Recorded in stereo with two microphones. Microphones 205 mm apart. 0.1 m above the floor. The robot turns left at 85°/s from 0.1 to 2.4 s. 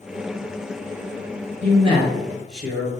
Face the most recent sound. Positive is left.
turn(degrees=180)